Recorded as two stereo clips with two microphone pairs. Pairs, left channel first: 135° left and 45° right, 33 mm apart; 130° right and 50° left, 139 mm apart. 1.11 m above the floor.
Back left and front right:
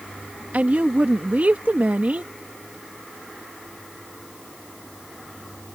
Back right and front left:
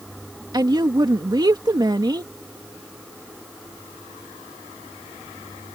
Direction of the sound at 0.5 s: 5° right.